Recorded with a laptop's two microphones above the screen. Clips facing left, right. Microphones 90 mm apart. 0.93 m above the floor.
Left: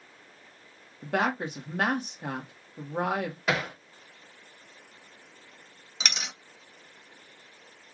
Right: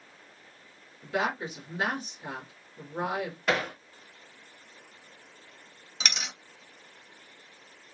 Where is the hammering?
5° left (ahead or behind), 1.9 m.